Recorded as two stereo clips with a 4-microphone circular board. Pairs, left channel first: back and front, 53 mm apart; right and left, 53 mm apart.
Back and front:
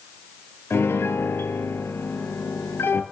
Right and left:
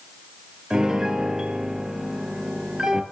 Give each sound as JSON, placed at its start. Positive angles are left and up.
{"t": 0.7, "sound": "a piano", "azimuth_deg": 160, "distance_m": 1.1}